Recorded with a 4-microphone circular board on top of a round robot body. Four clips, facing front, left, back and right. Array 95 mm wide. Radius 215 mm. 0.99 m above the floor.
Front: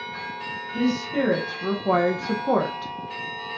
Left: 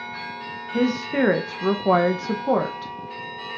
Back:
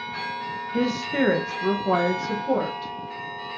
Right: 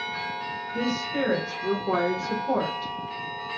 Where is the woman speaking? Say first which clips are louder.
Left 6 dB, even; 115° left, 1.4 m; by 2.9 s 40° left, 1.1 m.